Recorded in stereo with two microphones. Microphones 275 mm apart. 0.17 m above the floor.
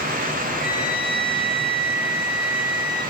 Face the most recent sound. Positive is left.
turn(degrees=-80)